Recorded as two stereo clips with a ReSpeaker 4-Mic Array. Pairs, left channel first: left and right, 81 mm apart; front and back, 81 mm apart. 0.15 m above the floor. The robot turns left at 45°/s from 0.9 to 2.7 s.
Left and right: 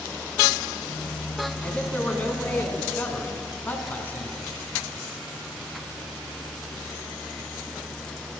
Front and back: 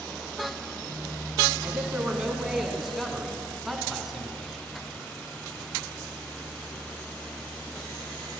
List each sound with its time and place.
1.6 s a man speaking: 145° left, 1.6 m; by 4.7 s 95° left, 1.6 m